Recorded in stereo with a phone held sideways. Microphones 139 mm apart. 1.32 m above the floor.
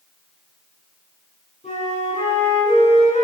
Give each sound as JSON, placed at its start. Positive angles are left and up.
{"t": 1.6, "sound": "a flute", "side_deg": 55, "distance_m": 6.5}